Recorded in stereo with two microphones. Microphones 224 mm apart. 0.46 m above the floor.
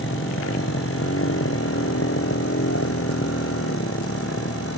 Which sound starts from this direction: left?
A motorcycle, at 0.0 s.